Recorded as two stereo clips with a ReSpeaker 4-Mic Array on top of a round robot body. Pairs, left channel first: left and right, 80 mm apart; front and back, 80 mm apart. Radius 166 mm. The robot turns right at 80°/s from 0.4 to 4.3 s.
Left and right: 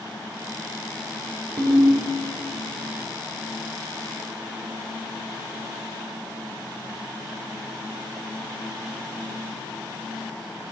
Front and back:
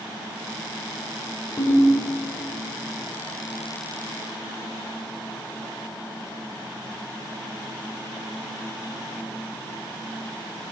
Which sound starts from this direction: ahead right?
A ringtone, at 1.6 s.